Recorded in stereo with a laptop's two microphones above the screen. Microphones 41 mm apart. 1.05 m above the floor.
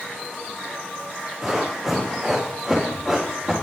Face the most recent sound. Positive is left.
turn(degrees=-5)  # may be behind; listen again after turning